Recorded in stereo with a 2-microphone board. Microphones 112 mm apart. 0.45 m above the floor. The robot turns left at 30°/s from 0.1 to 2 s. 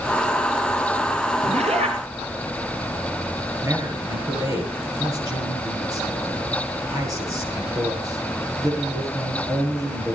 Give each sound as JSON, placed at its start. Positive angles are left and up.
{"t": 1.4, "sound": "a zipper", "side_deg": -75, "distance_m": 3.0}
{"t": 3.6, "sound": "a man speaking", "side_deg": -30, "distance_m": 8.5}